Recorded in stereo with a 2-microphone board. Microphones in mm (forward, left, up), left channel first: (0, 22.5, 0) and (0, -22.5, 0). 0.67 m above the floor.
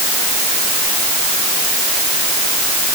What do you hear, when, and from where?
Only background noise.